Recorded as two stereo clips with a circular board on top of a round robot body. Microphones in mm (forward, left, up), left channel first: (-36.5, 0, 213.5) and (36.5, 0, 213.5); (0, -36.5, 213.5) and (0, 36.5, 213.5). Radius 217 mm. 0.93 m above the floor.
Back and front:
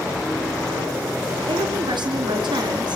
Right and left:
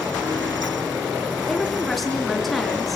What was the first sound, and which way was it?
A woman speaking, straight ahead.